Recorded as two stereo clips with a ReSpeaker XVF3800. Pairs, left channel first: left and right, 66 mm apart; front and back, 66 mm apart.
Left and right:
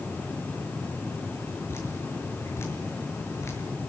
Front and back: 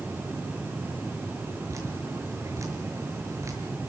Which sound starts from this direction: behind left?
Dripping, at 1.7 s.